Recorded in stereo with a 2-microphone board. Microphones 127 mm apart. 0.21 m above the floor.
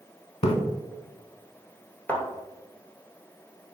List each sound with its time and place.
0.4 s a splash: 55° left (ahead or behind), 0.5 m
2.1 s a thud: 15° left (ahead or behind), 1.1 m